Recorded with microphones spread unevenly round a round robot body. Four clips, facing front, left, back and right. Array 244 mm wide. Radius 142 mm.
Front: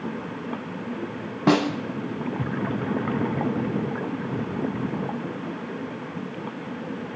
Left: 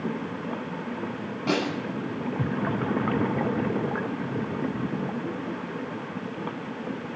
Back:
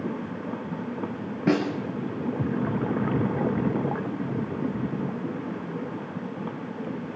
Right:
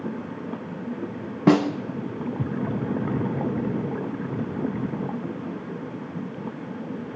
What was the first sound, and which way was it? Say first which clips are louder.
A snare drum: right 8 dB, front 3 dB; 80° right.